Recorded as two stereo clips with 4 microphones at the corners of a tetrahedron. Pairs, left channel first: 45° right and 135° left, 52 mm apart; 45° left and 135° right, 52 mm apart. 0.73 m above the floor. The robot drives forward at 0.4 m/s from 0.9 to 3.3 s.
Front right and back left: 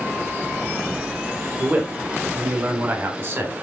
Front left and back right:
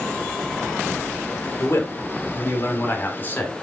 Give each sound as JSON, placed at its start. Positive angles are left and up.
{"t": 1.6, "sound": "a man speaking", "azimuth_deg": 75, "distance_m": 1.8}